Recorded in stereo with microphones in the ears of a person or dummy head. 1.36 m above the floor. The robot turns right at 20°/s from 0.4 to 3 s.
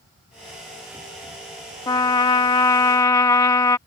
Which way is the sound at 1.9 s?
20° left (ahead or behind).